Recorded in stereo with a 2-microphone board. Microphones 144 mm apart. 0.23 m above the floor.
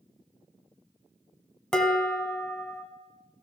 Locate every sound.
1.7 s dishes clattering: 5° left (ahead or behind), 1.0 m